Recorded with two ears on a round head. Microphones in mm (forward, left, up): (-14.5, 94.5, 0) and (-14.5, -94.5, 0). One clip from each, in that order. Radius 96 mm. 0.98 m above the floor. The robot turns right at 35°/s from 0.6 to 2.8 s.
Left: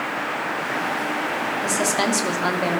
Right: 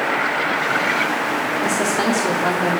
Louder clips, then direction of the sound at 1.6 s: Right 1 dB; 20° left.